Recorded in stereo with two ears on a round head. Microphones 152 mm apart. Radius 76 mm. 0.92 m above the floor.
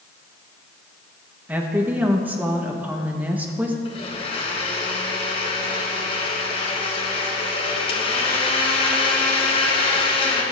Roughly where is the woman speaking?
Centre.